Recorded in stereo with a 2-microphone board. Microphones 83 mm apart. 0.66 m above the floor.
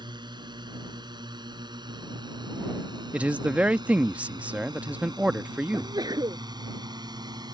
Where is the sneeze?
50° right (ahead or behind).